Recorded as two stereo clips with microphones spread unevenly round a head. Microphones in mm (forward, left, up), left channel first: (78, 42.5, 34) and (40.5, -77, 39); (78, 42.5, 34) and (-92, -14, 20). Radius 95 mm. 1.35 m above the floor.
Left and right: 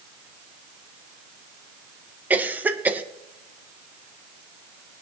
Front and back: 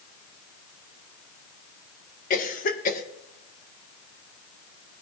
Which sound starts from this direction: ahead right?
A cough, at 2.3 s.